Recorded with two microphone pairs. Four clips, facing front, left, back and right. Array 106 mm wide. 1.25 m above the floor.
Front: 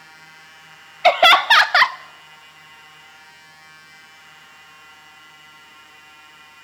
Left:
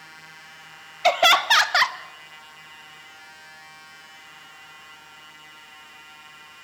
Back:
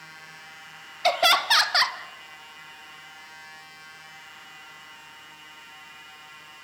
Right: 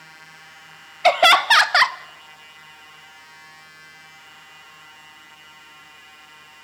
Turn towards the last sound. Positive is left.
turn(degrees=-25)